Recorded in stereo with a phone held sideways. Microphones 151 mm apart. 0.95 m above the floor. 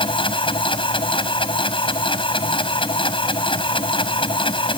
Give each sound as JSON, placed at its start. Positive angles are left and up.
{"t": 0.0, "sound": "a machine running", "side_deg": 35}